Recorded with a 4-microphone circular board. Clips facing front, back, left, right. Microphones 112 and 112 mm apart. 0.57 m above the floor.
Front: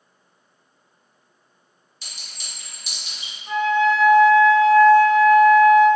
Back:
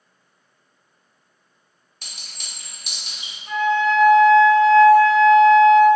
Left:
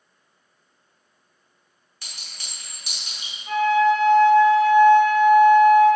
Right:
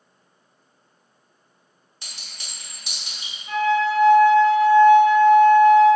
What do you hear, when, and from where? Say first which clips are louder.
2.0 s a clink: even, even; 155° right, 0.9 m
3.5 s a flute: front 1 dB, left 3 dB; 75° left, 1.1 m